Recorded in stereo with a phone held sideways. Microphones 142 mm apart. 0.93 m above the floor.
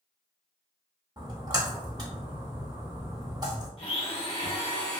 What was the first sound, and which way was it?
A splash, 30° right (ahead or behind).